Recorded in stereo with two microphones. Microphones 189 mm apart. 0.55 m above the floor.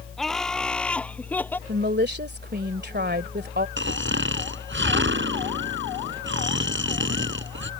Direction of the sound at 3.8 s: 75° right (ahead or behind).